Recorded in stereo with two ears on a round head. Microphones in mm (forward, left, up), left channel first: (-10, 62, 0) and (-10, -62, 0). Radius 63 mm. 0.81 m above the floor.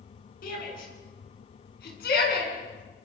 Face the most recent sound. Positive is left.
turn(degrees=85)